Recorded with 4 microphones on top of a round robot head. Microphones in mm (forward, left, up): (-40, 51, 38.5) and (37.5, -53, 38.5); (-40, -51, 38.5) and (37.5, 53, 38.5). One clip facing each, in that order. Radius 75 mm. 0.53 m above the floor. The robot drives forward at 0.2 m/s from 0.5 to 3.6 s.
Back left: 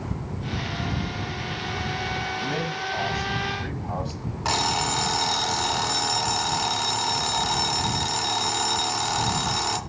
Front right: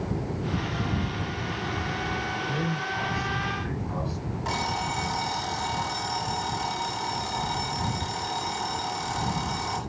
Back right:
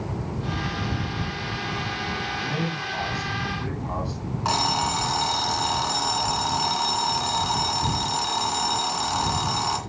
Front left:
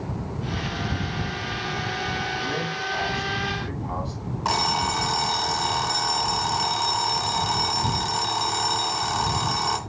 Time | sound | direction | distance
2.4 | a man speaking | 155° left | 9 m
4.5 | an alarm clock | 140° left | 3 m